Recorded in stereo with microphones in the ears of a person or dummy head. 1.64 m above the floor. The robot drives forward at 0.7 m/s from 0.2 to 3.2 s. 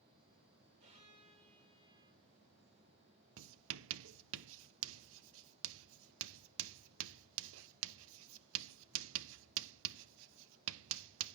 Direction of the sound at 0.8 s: 35° right (ahead or behind).